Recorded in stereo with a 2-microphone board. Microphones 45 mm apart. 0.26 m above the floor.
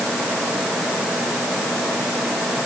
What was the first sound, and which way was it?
Only background noise.